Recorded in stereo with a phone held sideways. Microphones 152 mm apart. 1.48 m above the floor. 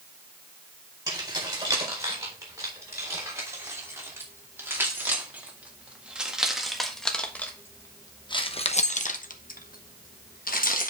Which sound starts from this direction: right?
Keys jangling, at 1.1 s.